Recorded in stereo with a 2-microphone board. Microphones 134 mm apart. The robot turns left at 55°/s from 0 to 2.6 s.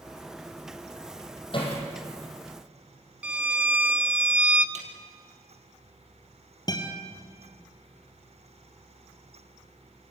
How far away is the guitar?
About 3 m.